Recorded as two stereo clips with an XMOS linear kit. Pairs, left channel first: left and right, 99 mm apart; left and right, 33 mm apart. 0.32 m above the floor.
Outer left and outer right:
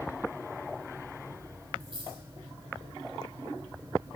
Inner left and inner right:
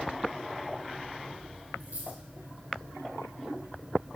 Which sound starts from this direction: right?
A dropped coin, at 1.8 s.